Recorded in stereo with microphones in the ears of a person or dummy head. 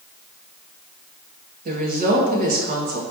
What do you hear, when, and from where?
1.6 s a woman speaking: 40° right (ahead or behind), 0.9 m